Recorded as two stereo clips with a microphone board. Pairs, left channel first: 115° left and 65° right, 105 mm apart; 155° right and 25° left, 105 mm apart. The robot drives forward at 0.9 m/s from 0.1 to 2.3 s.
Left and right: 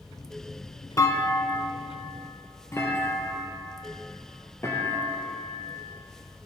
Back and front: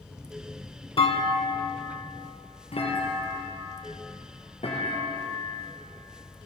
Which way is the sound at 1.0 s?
175° left.